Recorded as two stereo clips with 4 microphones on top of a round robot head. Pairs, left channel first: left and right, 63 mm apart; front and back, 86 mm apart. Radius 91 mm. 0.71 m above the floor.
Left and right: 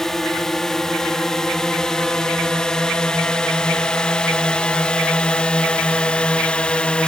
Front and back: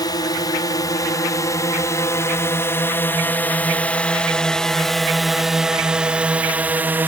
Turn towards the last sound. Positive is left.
turn(degrees=145)